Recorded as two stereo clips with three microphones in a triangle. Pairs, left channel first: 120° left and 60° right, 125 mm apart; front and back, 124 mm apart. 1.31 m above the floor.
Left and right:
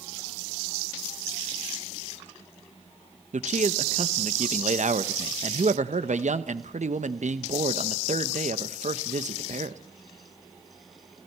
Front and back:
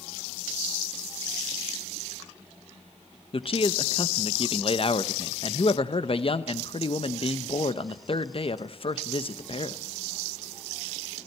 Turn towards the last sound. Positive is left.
turn(degrees=-45)